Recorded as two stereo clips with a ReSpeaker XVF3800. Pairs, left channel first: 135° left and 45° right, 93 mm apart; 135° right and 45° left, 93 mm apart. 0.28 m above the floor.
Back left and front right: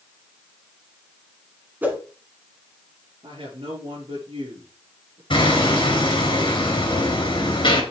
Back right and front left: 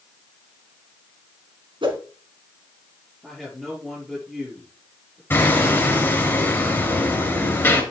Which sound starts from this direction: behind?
Hammering, at 5.3 s.